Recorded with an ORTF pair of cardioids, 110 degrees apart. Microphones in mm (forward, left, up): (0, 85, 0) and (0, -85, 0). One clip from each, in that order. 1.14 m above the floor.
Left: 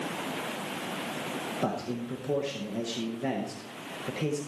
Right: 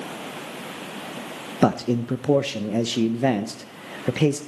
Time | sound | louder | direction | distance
1.6 | a man speaking | right 15 dB | 55° right | 0.7 m